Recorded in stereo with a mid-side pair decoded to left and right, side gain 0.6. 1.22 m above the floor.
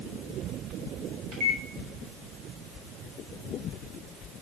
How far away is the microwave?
About 3 m.